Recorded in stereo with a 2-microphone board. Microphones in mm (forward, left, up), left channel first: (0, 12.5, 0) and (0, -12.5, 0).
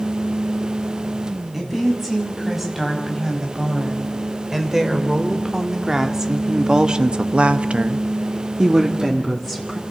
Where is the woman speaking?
10° right (ahead or behind), 6.5 m.